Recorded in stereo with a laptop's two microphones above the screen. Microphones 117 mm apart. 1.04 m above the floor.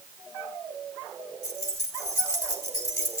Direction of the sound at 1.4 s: 30° left (ahead or behind).